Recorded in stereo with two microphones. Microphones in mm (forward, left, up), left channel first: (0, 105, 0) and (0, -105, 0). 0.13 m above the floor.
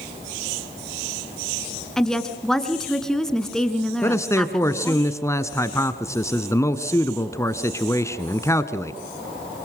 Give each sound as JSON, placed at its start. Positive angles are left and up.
{"t": 2.0, "sound": "a woman speaking", "side_deg": 5, "distance_m": 1.7}
{"t": 4.0, "sound": "a man speaking", "side_deg": 15, "distance_m": 1.2}